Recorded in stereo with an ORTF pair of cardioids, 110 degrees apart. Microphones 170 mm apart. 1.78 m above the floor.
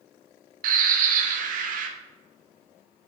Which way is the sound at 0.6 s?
55° right.